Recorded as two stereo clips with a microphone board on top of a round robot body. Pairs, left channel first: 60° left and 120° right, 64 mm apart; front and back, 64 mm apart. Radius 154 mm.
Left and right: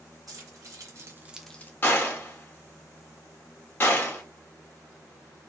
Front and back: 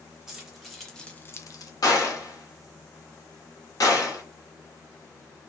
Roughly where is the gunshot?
Ahead.